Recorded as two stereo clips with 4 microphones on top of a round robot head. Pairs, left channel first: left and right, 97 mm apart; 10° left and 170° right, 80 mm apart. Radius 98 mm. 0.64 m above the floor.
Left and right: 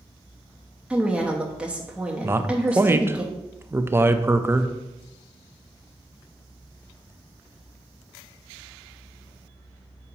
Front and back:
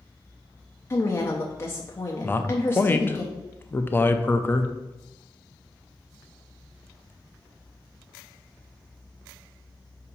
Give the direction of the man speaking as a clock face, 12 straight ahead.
1 o'clock.